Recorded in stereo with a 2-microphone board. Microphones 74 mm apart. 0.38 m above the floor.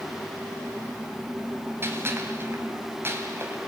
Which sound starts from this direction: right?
A gunshot, at 1.8 s.